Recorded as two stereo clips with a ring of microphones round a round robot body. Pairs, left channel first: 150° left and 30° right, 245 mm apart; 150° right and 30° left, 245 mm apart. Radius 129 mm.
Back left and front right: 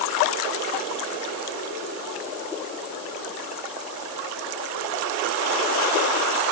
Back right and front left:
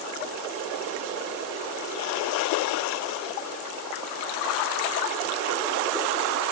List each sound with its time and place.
Only background noise.